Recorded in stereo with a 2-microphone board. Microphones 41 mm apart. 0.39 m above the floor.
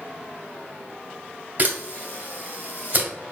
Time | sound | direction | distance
1.6 | a camera shutter | 35° right (ahead or behind) | 1.5 m